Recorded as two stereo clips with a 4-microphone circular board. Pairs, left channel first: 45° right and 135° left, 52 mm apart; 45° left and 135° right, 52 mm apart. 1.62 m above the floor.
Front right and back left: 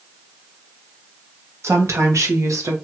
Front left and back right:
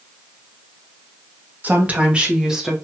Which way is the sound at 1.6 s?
170° left.